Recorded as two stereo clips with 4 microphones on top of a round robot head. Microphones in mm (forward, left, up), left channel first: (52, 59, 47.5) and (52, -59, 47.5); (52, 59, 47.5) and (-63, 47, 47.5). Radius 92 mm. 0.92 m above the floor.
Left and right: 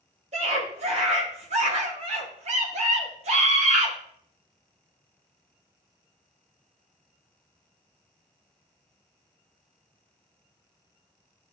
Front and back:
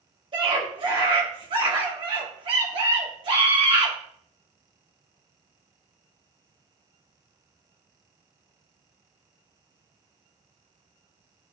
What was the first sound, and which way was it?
A scream, 125° right.